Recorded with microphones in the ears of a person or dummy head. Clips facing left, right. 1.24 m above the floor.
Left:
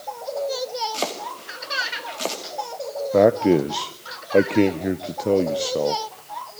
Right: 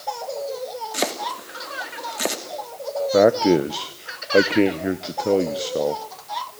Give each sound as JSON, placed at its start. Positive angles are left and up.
{"t": 0.9, "sound": "chopping", "side_deg": -15, "distance_m": 2.5}
{"t": 3.1, "sound": "a man speaking", "side_deg": 5, "distance_m": 0.6}